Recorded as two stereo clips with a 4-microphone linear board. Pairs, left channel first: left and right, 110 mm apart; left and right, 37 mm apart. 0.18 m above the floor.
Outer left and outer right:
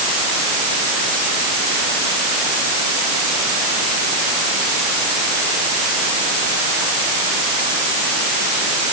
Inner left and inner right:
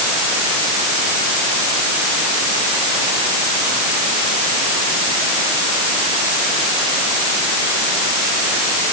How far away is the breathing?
I don't hear breathing.